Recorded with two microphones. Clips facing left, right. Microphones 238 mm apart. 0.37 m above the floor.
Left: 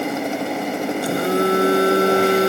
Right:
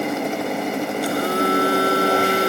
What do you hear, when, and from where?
1.0 s a phone buzzing: 25° left (ahead or behind)